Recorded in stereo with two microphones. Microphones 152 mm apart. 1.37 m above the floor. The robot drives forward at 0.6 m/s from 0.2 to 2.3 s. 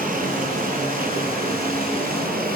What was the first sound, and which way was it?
Running water, 65° right (ahead or behind).